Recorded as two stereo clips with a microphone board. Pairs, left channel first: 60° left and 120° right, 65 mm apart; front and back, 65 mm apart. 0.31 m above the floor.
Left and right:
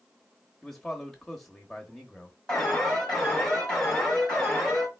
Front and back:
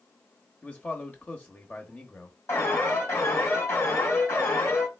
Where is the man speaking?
20° right, 0.9 m.